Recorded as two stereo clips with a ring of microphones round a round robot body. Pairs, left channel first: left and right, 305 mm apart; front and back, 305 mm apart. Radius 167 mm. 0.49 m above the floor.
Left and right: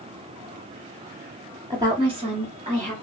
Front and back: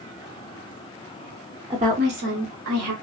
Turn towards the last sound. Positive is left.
turn(degrees=-155)